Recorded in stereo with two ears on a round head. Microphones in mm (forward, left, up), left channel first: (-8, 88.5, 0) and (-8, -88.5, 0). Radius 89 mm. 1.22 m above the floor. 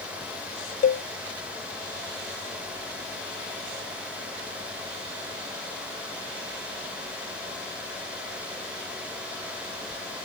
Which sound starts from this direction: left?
A cowbell, at 0.8 s.